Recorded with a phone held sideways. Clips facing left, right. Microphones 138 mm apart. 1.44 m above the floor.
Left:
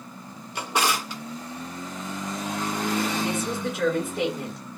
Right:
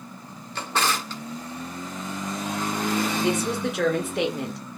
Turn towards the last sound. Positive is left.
turn(degrees=-75)  # may be behind; listen again after turning